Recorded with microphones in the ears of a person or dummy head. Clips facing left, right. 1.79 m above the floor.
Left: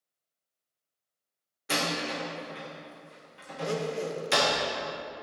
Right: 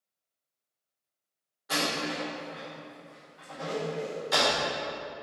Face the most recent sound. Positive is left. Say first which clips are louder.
# left 2 dB
turn(degrees=65)  # may be behind; listen again after turning